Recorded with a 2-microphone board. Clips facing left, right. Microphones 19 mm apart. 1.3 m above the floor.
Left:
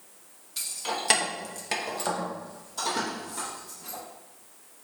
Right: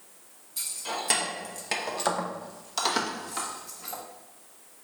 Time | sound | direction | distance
0.6 | keys jangling | 40° left (ahead or behind) | 1.0 m